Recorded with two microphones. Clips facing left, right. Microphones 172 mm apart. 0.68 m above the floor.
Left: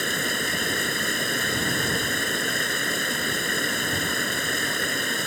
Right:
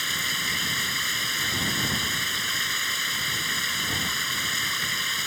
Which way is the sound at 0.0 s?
55° left (ahead or behind).